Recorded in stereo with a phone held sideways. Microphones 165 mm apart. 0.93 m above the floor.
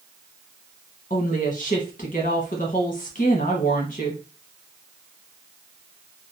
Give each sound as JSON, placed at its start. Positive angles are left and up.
{"t": 1.1, "sound": "a woman speaking", "side_deg": 50, "distance_m": 1.2}